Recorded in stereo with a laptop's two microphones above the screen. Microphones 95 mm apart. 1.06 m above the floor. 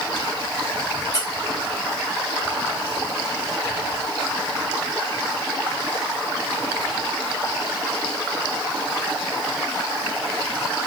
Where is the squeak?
40° left (ahead or behind), 1.3 m.